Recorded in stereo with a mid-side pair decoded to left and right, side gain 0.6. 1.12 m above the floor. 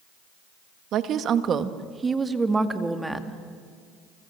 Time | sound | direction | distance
0.9 | a woman speaking | 60° right | 1.7 m